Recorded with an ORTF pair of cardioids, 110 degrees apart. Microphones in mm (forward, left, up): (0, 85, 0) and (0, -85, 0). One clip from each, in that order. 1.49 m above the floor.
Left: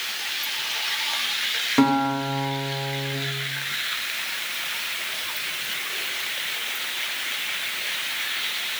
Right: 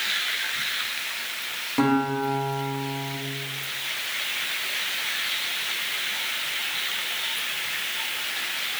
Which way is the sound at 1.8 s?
35° left.